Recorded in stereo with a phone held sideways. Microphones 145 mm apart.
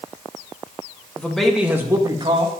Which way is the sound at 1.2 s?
10° left (ahead or behind).